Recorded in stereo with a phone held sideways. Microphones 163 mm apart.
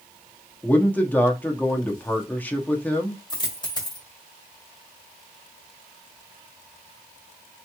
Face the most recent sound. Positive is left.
turn(degrees=25)  # may be behind; listen again after turning